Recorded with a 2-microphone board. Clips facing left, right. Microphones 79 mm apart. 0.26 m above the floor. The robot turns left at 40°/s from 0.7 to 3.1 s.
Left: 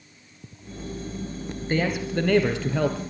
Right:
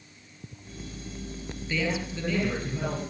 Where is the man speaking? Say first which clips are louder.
Left 5 dB; 135° left, 5.5 m; by 3.0 s 80° left, 5.5 m.